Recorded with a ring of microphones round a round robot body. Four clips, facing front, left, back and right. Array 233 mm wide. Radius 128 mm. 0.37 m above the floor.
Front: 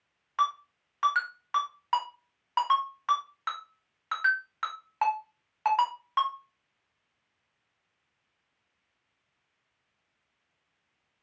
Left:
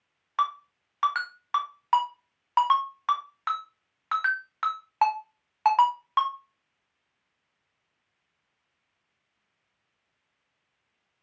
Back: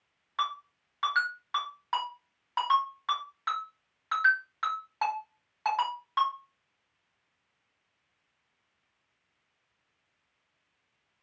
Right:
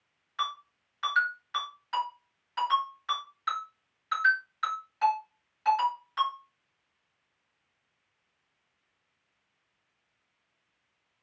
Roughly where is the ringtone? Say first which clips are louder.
Left 7 dB, front 4 dB; left.